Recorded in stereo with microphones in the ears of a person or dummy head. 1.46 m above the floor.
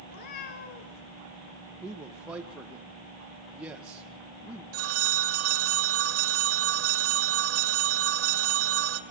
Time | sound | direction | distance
0.1 | a cat meowing | 55° left (ahead or behind) | 2.5 m
1.8 | a man speaking | 10° right (ahead or behind) | 1.4 m
4.7 | a phone ringing | 80° right | 2.0 m